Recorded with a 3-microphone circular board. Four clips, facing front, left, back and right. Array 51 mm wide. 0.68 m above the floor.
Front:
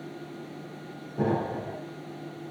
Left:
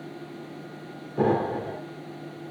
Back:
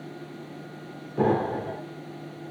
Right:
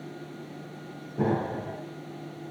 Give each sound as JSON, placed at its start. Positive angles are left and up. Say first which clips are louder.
{"t": 1.2, "sound": "an explosion", "louder": "left 4 dB, back 4 dB", "azimuth_deg": 130, "distance_m": 2.5}